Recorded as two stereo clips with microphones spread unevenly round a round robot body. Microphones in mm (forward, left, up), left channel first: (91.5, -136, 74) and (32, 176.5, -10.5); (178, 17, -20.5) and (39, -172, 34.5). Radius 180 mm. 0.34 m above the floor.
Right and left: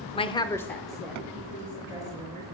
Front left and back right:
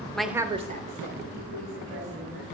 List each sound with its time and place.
0.1 s a woman speaking: 5° left, 0.9 m; by 2.4 s 175° left, 3 m